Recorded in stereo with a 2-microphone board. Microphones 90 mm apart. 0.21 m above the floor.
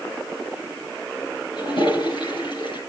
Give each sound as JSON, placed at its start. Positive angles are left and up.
{"t": 1.6, "sound": "a toilet flushing", "side_deg": 60, "distance_m": 3.5}